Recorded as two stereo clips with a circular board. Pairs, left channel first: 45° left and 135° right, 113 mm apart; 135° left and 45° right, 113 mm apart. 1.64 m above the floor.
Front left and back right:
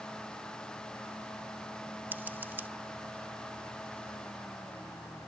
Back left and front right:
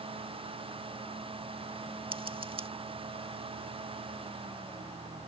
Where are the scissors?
65° right.